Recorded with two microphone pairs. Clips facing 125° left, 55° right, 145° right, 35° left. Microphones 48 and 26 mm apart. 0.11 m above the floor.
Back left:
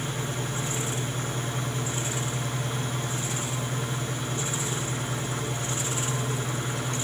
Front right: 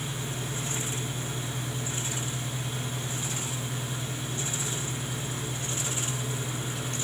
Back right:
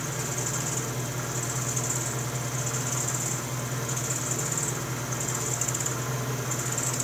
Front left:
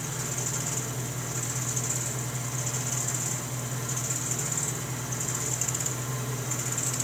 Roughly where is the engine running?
Behind.